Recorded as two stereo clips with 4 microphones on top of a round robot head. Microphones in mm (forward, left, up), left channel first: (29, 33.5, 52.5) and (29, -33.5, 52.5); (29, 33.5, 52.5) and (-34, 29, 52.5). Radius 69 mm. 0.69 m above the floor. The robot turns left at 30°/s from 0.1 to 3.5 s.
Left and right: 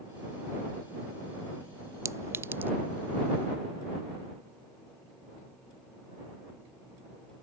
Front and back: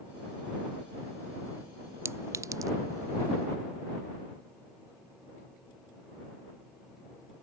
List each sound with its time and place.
2.0 s a clink: 130° right; by 2.7 s 150° right